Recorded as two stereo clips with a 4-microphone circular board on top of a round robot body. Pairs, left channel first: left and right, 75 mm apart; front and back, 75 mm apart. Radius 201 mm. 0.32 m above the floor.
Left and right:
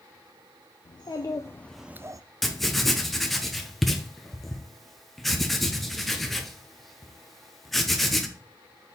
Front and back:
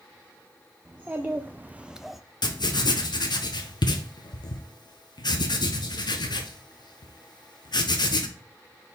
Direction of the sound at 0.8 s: 110° left.